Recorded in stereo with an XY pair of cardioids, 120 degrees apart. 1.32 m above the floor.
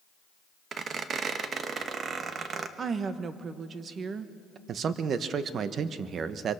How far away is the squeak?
About 1.2 m.